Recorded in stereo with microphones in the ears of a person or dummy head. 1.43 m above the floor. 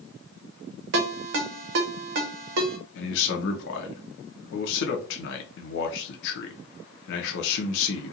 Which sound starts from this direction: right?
A ringtone, at 0.9 s.